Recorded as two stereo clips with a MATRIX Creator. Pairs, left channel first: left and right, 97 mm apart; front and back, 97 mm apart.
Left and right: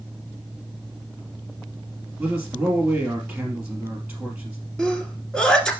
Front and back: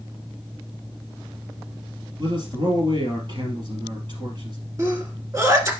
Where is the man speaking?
165° right, 3 m.